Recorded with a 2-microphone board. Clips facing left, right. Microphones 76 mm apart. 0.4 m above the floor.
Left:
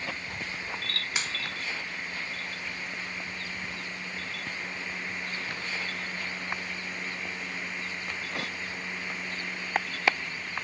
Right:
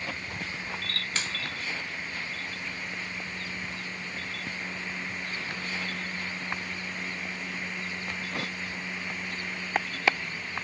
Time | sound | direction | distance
1.1 | a finger snap | 15° left (ahead or behind) | 0.7 m